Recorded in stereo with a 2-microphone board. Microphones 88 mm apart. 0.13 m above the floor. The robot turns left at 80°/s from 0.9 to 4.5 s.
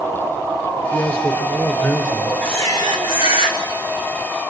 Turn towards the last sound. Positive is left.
turn(degrees=-5)